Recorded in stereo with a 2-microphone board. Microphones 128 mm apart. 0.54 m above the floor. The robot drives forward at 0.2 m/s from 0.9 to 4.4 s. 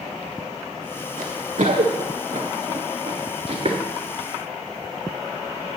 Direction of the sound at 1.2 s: 70° right (ahead or behind).